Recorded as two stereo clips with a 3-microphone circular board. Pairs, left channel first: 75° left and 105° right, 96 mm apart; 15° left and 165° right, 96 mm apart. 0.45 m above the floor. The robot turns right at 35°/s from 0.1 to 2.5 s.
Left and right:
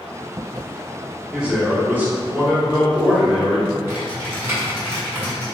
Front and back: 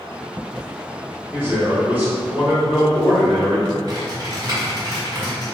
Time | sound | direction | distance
1.3 | a man speaking | 160° right | 1.3 m
3.9 | typing on a keyboard | 160° right | 1.8 m